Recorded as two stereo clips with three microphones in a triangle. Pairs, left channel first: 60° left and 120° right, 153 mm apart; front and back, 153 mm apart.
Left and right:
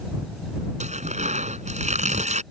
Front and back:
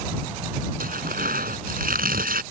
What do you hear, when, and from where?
0.8 s tearing paper: 160° right